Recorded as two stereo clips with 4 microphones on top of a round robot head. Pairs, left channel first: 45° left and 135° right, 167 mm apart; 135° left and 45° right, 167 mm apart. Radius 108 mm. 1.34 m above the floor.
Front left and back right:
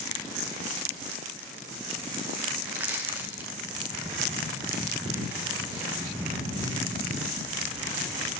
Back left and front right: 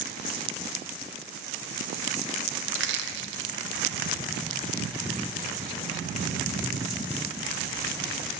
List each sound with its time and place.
2.7 s crushing: 55° right, 0.7 m